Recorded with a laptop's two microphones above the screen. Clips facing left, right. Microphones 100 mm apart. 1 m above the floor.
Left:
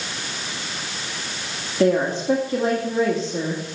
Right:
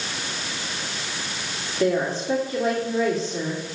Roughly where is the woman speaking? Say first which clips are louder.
Left 4 dB; left.